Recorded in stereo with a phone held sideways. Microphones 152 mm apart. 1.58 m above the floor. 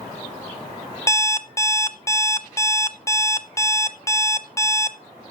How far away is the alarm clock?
About 0.7 m.